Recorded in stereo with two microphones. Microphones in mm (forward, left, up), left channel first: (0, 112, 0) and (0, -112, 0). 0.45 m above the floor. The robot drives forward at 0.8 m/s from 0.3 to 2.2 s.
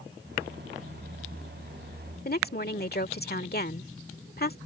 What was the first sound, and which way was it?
A woman speaking, 45° left (ahead or behind).